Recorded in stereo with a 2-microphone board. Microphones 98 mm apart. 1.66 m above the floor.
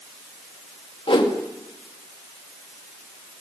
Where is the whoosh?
70° left (ahead or behind), 1.9 m.